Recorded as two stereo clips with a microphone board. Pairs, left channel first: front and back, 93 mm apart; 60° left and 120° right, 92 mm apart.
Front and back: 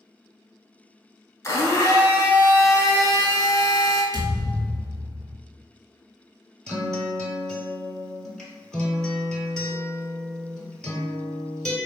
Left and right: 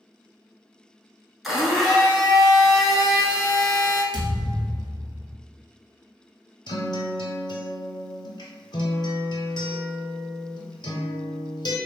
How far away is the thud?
About 0.9 m.